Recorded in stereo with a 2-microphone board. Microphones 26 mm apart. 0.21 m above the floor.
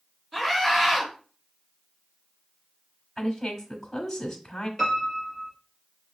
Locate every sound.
0.3 s a scream: 25° right (ahead or behind), 3 m
3.2 s a woman speaking: 10° left (ahead or behind), 1.1 m
4.8 s a piano: centre (ahead or behind), 3 m